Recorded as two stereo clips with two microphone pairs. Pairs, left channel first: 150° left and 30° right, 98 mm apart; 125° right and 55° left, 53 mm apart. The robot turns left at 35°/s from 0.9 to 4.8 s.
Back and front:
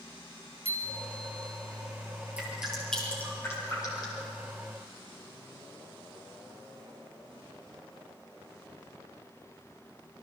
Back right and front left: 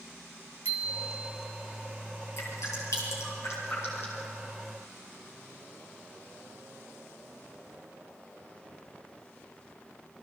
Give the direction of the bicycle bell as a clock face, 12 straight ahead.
12 o'clock.